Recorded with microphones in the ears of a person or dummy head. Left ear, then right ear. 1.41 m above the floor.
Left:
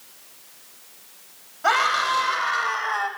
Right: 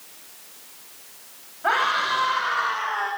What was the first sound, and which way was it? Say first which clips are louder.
A scream: left 1 dB; 85° left.